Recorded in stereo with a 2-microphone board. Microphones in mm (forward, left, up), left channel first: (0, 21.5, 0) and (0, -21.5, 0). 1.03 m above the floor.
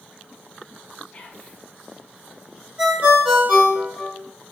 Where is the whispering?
35° left (ahead or behind), 0.9 m.